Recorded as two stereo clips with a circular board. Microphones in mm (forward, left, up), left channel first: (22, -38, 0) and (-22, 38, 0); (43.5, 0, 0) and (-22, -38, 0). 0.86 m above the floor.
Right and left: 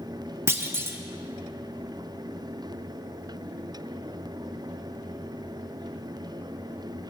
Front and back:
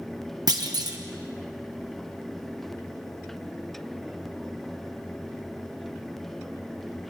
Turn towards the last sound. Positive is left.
turn(degrees=180)